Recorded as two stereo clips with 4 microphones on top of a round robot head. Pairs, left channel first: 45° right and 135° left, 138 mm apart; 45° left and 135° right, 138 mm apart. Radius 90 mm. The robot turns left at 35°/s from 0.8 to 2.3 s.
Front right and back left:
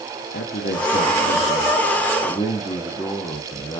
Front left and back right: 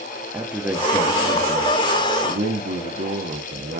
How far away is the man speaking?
About 1.5 m.